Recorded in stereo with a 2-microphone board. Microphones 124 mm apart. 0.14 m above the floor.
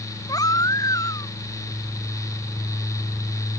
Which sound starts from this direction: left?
A baby crying, at 0.3 s.